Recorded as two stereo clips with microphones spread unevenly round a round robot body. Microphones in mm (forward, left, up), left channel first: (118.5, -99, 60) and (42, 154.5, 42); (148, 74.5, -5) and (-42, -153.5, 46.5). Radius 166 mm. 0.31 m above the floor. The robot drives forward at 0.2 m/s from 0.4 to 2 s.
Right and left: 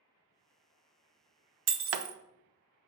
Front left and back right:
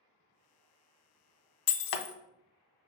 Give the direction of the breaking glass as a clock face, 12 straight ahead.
10 o'clock.